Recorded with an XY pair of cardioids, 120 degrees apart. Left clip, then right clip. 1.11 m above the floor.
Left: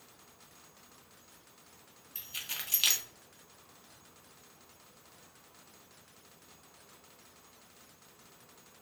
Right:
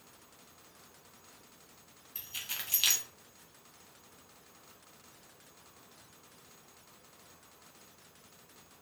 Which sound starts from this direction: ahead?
Keys jangling, at 2.1 s.